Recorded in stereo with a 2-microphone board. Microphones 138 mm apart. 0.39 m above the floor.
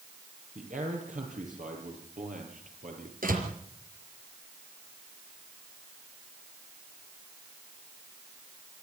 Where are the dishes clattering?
No dishes clattering in this recording.